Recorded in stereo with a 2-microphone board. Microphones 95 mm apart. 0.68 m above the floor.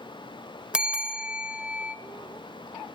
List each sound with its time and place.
0.7 s a bell: 10° right (ahead or behind), 0.9 m